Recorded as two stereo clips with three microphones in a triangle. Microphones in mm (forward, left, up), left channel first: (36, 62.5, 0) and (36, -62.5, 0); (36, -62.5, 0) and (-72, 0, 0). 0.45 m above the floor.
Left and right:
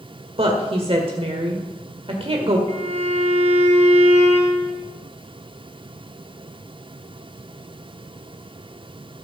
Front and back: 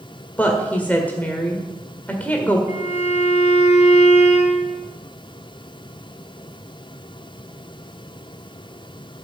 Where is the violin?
60° right, 2.5 m.